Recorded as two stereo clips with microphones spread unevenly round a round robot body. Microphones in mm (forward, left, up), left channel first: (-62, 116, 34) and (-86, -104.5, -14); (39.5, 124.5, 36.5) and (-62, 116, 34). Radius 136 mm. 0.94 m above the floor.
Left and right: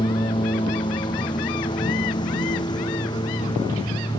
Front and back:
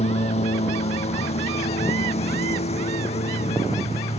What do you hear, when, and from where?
0.0 s a lawn mower: 10° left